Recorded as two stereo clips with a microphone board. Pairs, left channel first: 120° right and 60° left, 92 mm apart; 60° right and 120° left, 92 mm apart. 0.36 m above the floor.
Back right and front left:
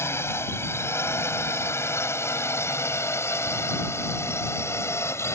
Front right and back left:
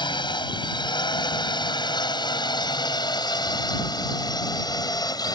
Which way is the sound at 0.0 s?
65° right.